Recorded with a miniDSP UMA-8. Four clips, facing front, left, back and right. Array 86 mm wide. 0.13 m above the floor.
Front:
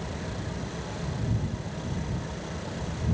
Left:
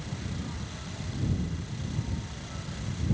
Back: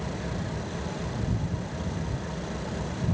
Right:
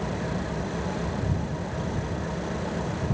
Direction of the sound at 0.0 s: 100° right.